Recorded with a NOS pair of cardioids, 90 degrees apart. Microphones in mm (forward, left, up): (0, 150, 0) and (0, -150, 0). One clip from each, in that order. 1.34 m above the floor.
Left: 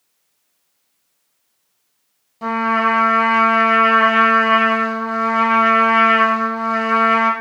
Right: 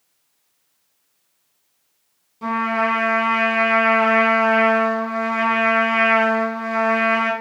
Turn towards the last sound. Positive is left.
turn(degrees=30)